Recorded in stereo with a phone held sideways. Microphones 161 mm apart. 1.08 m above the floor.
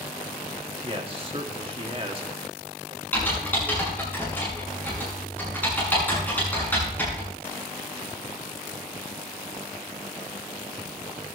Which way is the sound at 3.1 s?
10° left (ahead or behind).